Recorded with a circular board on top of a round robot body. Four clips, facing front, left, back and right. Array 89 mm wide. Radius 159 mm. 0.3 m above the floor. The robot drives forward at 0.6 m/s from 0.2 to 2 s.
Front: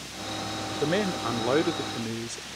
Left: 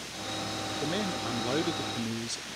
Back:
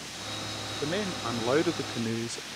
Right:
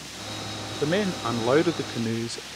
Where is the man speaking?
50° right; by 2.5 s 105° right.